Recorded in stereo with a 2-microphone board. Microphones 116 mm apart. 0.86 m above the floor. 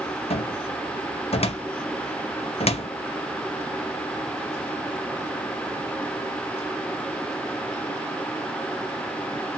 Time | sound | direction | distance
0.3 | a cupboard door | 60° left (ahead or behind) | 0.6 m